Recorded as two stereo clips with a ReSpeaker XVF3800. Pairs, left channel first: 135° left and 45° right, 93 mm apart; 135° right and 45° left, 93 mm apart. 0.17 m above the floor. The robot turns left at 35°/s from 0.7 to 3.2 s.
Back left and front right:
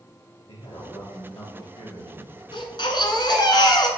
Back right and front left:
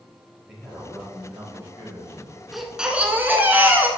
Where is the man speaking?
135° left, 2.5 m; by 2.4 s 75° left, 2.5 m.